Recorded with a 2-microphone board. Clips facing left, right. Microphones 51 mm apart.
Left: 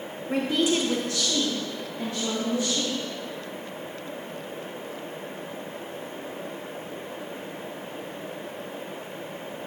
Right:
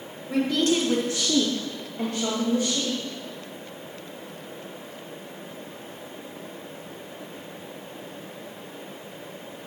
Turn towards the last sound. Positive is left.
turn(degrees=-60)  # may be behind; listen again after turning